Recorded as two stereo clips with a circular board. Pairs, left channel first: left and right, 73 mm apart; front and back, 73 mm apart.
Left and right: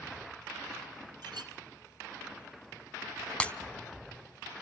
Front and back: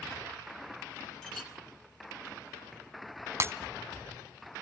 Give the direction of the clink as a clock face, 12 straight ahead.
3 o'clock.